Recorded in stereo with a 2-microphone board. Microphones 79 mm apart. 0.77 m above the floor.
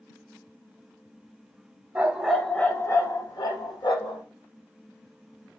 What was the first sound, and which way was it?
A dog barking, 20° right (ahead or behind).